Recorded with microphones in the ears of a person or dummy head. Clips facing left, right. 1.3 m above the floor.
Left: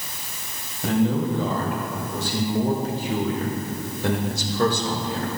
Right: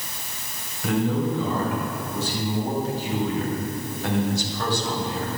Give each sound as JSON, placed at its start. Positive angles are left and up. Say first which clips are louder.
{"t": 0.8, "sound": "a man speaking", "louder": "left 2 dB", "side_deg": 30, "distance_m": 3.0}